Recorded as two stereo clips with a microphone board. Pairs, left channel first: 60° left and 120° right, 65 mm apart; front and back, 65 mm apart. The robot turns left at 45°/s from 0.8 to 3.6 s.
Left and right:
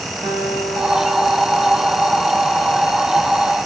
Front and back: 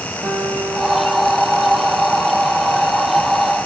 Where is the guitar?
130° right, 9 m; by 2.2 s 170° left, 9 m.